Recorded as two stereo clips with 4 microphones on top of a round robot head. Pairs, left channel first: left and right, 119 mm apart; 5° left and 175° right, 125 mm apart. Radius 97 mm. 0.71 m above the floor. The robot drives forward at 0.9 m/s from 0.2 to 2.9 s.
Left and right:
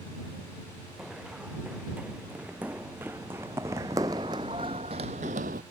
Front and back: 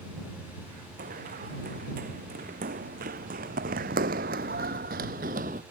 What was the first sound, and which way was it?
Running footsteps, 175° right.